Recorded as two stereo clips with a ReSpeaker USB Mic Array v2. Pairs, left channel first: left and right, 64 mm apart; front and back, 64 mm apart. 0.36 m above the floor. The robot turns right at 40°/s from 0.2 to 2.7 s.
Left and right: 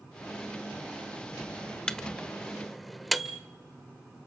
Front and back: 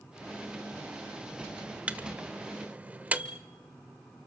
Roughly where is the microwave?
Behind left.